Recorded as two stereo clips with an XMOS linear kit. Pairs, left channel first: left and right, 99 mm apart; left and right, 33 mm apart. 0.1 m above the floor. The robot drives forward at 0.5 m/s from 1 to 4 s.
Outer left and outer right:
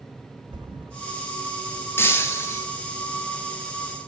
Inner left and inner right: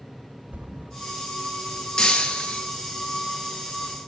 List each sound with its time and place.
0.5 s a thud: 50° right (ahead or behind), 1.7 m
2.0 s breaking glass: 25° left (ahead or behind), 1.1 m; by 2.7 s 30° left (ahead or behind), 0.9 m